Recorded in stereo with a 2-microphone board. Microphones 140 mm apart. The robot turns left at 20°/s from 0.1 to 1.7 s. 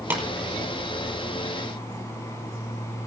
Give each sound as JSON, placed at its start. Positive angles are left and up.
{"t": 0.1, "sound": "tapping", "side_deg": -15, "distance_m": 5.5}